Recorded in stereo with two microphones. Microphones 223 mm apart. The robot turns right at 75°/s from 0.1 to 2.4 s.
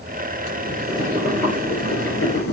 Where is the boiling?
60° right, 4 m; by 2.5 s 85° left, 4 m.